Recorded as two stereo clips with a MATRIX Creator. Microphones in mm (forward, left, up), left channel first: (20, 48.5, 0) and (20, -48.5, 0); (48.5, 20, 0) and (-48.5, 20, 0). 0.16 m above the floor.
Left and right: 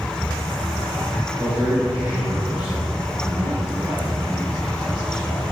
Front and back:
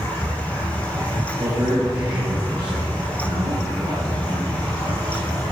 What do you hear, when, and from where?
1.4 s a man speaking: 160° right, 4.5 m